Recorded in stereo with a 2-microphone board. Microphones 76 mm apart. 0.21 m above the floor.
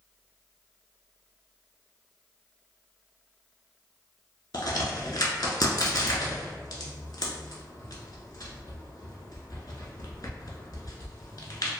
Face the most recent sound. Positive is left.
turn(degrees=65)  # may be behind; listen again after turning